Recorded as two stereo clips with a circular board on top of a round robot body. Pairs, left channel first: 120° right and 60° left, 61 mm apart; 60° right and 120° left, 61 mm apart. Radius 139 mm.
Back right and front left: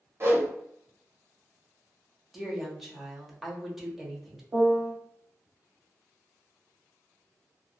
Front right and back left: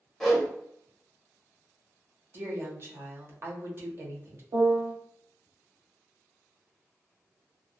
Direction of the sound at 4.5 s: 115° left.